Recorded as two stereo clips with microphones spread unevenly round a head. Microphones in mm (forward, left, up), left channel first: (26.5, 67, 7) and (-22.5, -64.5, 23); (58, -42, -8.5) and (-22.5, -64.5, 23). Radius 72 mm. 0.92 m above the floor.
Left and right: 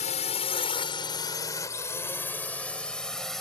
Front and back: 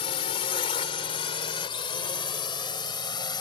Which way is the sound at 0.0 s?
30° left.